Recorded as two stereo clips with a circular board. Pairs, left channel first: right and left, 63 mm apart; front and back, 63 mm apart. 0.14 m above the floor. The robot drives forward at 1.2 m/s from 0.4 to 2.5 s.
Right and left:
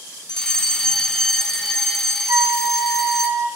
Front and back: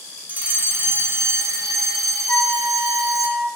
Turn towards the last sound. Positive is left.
turn(degrees=60)